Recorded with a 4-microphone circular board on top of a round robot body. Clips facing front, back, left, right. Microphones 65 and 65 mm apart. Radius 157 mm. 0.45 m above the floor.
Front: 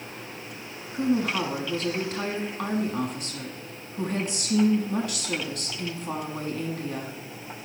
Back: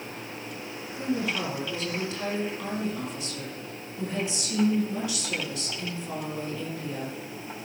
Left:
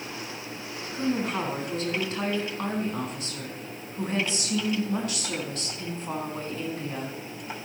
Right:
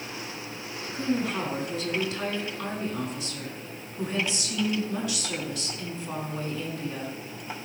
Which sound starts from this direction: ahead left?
A woman speaking, at 0.9 s.